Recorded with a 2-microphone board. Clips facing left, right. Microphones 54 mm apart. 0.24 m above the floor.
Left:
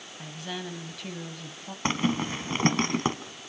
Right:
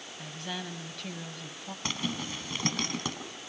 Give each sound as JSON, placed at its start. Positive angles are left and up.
{"t": 0.2, "sound": "a woman speaking", "side_deg": 0, "distance_m": 1.8}
{"t": 1.9, "sound": "a zipper", "side_deg": 35, "distance_m": 1.8}